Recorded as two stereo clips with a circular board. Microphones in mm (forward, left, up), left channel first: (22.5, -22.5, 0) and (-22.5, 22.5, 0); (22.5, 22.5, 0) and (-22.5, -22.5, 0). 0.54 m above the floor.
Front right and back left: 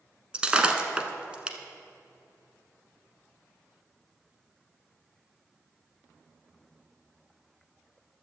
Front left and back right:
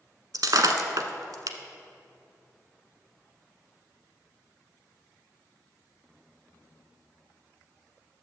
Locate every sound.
0.3 s breaking glass: 155° right, 1.0 m